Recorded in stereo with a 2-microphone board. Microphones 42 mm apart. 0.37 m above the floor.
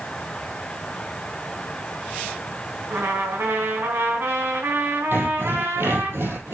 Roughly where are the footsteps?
No footsteps in this recording.